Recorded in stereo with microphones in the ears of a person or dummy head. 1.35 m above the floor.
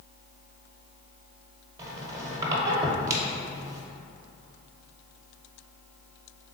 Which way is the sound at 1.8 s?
25° right (ahead or behind).